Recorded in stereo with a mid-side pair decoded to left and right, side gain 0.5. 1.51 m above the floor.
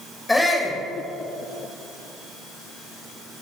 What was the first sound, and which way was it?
A shout, 10° left.